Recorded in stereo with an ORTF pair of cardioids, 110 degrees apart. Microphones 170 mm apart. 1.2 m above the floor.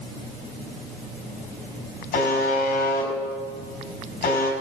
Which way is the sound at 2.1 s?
65° left.